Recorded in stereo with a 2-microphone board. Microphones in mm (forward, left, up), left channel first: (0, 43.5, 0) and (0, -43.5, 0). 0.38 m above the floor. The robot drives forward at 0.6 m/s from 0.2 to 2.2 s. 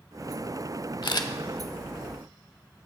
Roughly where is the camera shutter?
Left.